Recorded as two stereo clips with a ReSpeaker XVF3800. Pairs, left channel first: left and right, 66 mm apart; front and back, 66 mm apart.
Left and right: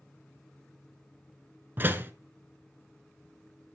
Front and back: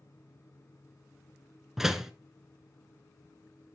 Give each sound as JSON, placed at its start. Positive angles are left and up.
{"t": 1.8, "sound": "a door slam", "azimuth_deg": -100, "distance_m": 0.9}